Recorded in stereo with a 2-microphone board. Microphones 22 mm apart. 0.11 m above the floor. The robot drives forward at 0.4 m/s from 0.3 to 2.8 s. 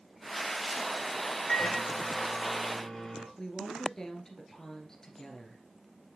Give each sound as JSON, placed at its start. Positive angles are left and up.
{"t": 1.5, "sound": "a microwave", "side_deg": 20, "distance_m": 1.4}
{"t": 3.4, "sound": "a woman speaking", "side_deg": 25, "distance_m": 1.8}